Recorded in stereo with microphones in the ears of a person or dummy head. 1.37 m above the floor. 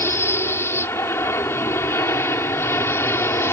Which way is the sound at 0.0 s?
15° left (ahead or behind).